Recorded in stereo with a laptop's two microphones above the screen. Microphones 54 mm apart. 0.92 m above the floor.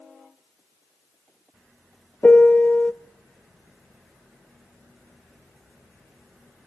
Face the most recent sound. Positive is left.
turn(degrees=35)  # may be behind; listen again after turning